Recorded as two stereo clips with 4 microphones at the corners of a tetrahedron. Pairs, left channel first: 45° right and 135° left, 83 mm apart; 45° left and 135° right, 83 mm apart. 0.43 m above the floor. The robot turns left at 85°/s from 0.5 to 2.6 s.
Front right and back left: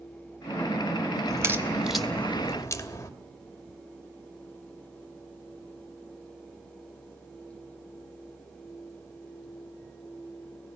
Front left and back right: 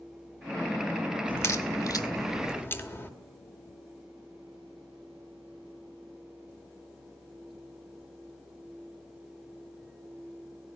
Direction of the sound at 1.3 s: 105° left.